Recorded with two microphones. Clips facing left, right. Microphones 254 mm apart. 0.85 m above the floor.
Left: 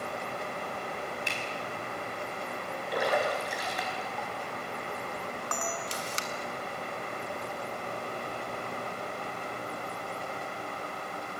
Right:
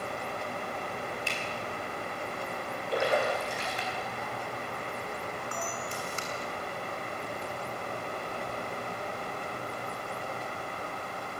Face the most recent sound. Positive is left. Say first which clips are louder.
# left 1 dB
turn(degrees=85)